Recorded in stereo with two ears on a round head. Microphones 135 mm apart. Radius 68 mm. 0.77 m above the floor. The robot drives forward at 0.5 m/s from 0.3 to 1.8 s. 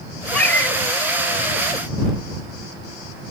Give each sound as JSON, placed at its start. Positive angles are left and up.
{"t": 0.3, "sound": "a cat meowing", "side_deg": 10, "distance_m": 0.8}